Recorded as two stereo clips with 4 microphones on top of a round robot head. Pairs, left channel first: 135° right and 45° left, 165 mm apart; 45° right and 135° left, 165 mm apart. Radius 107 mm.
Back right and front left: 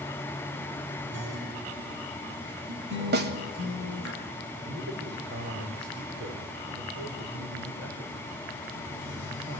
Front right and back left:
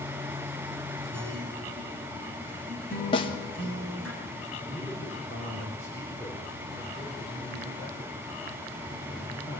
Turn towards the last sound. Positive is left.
turn(degrees=30)